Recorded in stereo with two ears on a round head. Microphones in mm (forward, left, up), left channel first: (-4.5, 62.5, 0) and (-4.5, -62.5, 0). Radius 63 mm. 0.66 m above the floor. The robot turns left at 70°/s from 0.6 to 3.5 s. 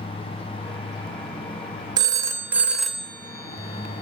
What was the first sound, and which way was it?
A phone ringing, 30° right (ahead or behind).